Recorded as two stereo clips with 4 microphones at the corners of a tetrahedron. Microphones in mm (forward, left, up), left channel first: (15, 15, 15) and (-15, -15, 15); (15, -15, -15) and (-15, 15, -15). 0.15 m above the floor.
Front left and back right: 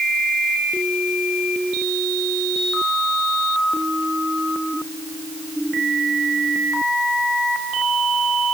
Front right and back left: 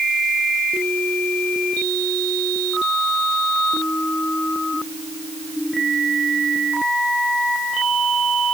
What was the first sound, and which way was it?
Only background noise.